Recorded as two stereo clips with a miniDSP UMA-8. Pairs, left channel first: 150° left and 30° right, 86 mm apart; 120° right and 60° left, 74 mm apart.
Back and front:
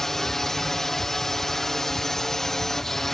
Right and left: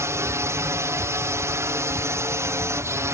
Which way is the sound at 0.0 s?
70° left.